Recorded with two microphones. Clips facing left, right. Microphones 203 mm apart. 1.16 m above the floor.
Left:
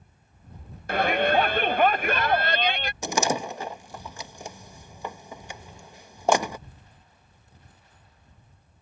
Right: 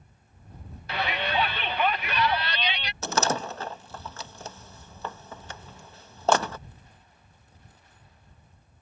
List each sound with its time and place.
0.9 s a shout: 50° left (ahead or behind)
3.0 s a door slam: 15° left (ahead or behind)